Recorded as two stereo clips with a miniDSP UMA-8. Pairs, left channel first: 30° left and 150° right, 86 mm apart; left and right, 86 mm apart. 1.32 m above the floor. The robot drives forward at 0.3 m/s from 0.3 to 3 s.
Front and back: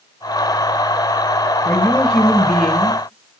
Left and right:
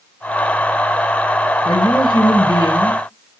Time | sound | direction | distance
1.6 | a woman speaking | 105° left | 1.0 m